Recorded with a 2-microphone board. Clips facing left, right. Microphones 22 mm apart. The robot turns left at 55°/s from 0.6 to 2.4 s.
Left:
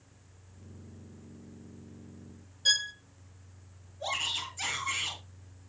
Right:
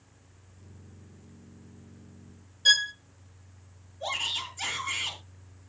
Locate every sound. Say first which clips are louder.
2.6 s a violin: right 5 dB; 20° right (ahead or behind), 0.6 m
4.0 s a shout: right 2 dB; 5° left (ahead or behind), 9 m